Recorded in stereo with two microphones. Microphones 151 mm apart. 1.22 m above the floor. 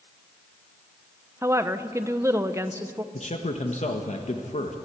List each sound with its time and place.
1.4 s a woman speaking: 20° right (ahead or behind), 0.9 m
3.1 s a man speaking: 50° left (ahead or behind), 1.4 m